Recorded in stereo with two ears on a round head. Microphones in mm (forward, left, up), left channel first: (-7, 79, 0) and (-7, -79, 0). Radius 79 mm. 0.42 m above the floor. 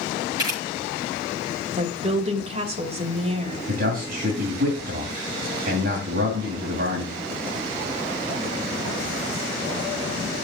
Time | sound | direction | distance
0.4 | a camera shutter | 25° right (ahead or behind) | 8 m
1.8 | a woman speaking | 35° right (ahead or behind) | 2 m
3.7 | a man speaking | 55° right (ahead or behind) | 2.5 m